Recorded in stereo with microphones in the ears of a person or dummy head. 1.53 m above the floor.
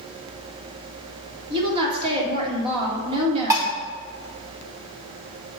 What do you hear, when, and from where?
1.5 s a woman speaking: 30° right (ahead or behind), 1.4 m
3.5 s dishes clattering: 10° right (ahead or behind), 0.5 m